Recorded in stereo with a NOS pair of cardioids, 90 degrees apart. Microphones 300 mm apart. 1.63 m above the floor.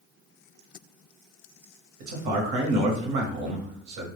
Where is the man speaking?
70° right, 0.9 m.